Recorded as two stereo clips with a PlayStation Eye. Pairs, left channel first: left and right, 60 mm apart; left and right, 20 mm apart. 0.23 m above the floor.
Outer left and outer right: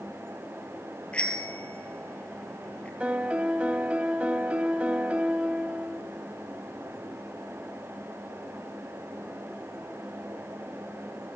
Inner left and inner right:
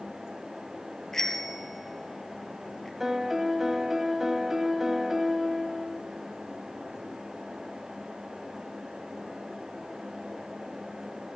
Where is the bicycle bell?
20° left (ahead or behind), 3.5 m.